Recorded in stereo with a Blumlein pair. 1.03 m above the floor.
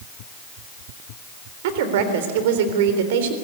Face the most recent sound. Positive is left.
turn(degrees=-50)